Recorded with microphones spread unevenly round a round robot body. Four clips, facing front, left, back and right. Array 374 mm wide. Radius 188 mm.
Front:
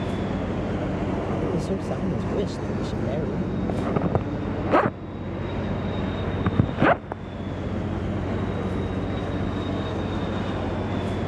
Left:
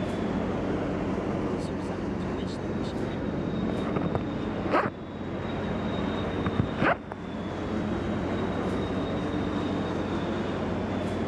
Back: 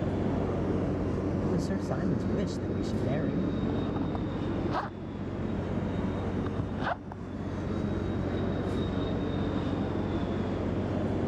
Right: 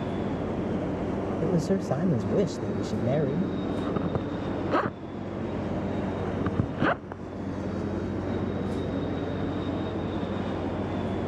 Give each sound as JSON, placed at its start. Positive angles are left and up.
{"t": 1.4, "sound": "a man speaking", "azimuth_deg": -80}
{"t": 3.7, "sound": "a zipper", "azimuth_deg": 0}